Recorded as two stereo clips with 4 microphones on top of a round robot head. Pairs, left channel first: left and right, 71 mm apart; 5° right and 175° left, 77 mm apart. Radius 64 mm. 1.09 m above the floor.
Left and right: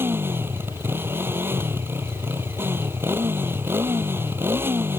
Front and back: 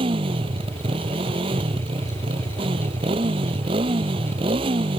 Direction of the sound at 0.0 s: 150° right.